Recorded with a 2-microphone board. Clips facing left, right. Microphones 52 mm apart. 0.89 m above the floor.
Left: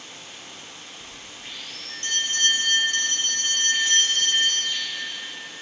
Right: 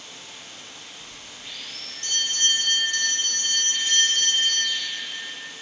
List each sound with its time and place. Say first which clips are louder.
0.0 s running water: left 1 dB; 40° left (ahead or behind), 2.5 m
1.0 s a bell: left 1 dB; 50° left (ahead or behind), 3.5 m